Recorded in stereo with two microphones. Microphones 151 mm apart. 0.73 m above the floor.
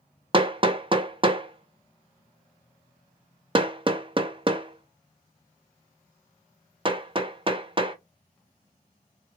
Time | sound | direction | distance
0.3 | hammering | 35° right (ahead or behind) | 0.6 m